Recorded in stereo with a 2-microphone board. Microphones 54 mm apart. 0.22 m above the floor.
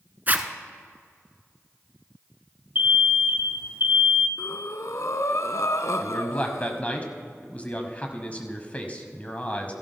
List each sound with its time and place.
0.3 s a zipper: 35° right (ahead or behind), 0.7 m
2.8 s an alarm: 40° right (ahead or behind), 1.0 m
4.4 s breathing: 70° left (ahead or behind), 0.5 m
6.0 s a man speaking: 30° left (ahead or behind), 1.1 m